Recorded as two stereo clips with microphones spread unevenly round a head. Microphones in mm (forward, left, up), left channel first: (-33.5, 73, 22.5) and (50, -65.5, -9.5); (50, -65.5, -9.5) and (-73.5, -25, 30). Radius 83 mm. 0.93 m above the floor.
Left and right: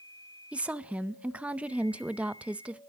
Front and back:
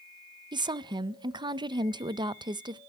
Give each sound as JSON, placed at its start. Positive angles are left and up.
{"t": 0.5, "sound": "a woman speaking", "azimuth_deg": -135, "distance_m": 0.6}